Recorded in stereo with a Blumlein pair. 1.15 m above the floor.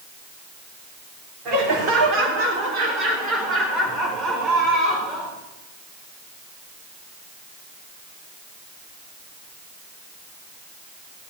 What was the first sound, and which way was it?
Laughter, 40° right.